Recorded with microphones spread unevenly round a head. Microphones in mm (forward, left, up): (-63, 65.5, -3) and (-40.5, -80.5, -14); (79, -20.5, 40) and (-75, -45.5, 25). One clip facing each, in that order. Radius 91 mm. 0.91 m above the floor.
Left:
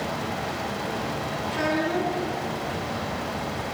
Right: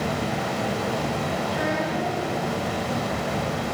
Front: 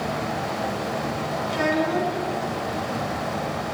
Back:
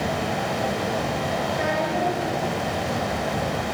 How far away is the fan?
About 5.5 m.